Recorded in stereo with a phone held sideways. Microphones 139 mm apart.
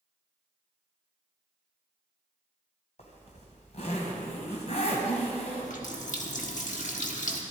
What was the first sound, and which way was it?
A zipper, 50° left (ahead or behind).